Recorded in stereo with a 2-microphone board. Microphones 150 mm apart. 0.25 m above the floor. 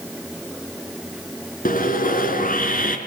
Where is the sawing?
70° left (ahead or behind), 3.5 m.